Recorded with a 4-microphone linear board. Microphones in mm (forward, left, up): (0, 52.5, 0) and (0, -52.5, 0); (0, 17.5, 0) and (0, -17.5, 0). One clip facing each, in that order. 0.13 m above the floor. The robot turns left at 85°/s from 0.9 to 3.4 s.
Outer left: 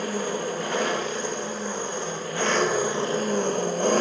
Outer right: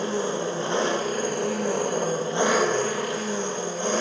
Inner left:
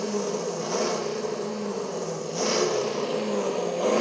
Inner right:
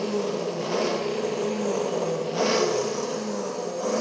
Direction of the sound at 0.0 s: 30° right.